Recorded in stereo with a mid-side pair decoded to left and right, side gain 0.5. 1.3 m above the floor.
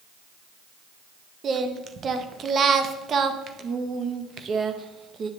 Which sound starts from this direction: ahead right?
Singing, at 1.4 s.